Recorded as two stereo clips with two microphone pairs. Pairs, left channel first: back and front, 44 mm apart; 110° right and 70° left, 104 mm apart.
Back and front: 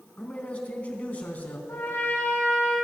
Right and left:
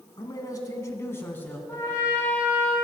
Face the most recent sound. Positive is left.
turn(degrees=-175)